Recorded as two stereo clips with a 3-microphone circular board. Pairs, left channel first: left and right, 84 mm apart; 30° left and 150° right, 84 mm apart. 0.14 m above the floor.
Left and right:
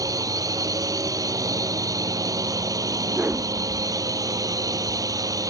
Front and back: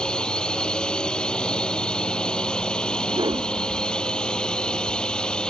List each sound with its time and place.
0.0 s a drone: 50° right
3.1 s a whoosh: 160° right